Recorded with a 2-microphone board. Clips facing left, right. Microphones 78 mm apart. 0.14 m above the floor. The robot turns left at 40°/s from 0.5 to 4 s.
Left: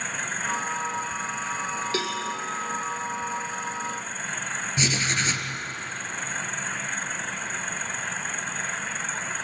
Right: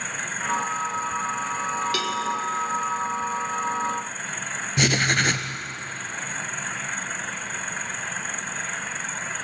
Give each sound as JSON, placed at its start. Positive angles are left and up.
{"t": 1.9, "sound": "a cowbell", "side_deg": 30, "distance_m": 2.0}
{"t": 4.8, "sound": "writing", "side_deg": -65, "distance_m": 1.2}